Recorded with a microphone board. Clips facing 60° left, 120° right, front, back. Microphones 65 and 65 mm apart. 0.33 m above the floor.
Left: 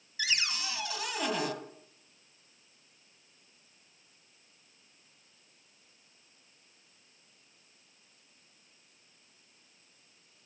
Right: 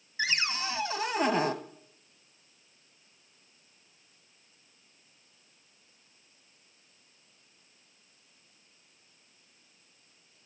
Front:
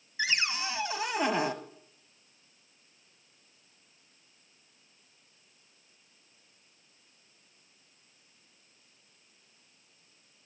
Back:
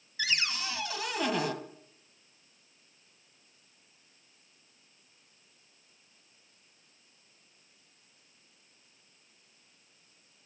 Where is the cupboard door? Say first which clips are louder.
Right 3 dB, front 2 dB; 65° right, 1.1 m.